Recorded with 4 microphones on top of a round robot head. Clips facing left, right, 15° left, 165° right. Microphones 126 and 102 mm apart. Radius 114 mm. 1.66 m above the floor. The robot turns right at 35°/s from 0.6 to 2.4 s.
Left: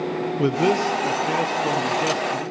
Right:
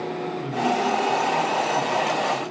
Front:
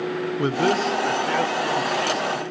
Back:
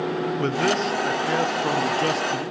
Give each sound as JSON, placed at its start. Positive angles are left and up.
{"t": 0.4, "sound": "a man speaking", "azimuth_deg": 95, "distance_m": 0.8}